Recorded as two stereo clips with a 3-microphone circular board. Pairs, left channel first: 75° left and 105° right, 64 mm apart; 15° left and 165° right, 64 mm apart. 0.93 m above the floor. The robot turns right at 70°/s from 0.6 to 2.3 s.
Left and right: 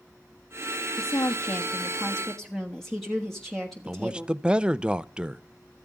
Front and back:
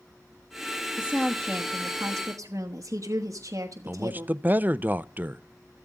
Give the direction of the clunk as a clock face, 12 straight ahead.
I don't hear a clunk.